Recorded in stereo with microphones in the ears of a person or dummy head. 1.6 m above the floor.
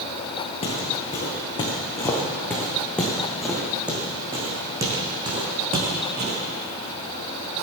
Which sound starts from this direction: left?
Footsteps, at 0.6 s.